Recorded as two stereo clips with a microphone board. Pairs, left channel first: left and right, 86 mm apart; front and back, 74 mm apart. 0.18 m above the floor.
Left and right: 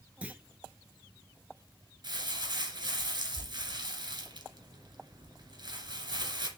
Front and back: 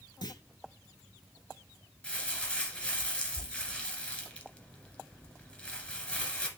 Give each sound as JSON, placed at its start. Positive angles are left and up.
{"t": 0.2, "sound": "a clunk", "azimuth_deg": -15, "distance_m": 0.6}
{"t": 2.0, "sound": "crumpling", "azimuth_deg": -70, "distance_m": 2.0}